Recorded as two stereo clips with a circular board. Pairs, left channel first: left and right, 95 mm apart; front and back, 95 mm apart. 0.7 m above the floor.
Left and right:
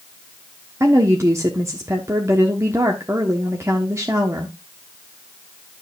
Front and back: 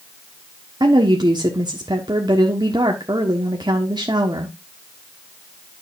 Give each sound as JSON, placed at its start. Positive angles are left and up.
{"t": 0.8, "sound": "a woman speaking", "azimuth_deg": -145, "distance_m": 1.2}